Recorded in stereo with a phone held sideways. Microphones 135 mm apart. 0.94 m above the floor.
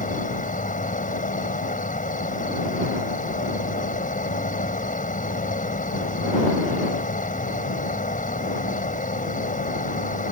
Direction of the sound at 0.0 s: 80° left.